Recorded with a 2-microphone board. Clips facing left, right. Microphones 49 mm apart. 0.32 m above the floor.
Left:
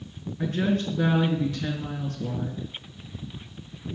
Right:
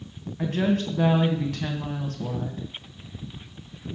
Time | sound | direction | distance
0.4 | a woman speaking | 55° right (ahead or behind) | 2 m